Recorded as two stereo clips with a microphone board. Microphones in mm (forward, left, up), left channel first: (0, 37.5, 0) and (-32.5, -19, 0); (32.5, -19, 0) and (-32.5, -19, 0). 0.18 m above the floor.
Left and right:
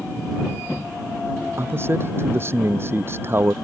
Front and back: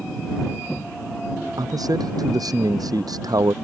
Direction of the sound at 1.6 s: 170° right.